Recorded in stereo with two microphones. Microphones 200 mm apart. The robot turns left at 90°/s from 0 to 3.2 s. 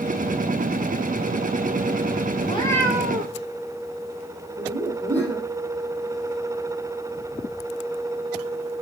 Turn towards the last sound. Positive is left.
turn(degrees=-20)  # may be behind; listen again after turning